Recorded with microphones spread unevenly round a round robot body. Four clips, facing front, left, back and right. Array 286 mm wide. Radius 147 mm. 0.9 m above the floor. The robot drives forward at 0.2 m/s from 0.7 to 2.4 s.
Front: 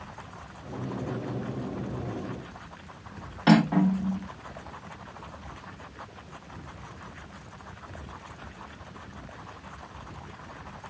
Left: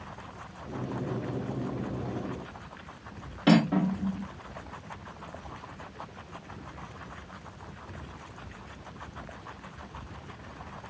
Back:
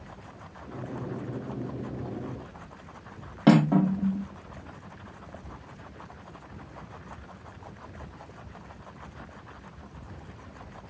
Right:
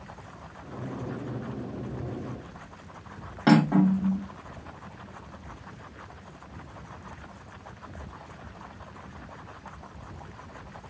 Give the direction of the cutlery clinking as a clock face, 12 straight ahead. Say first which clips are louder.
Right 3 dB, back 1 dB; 6 o'clock.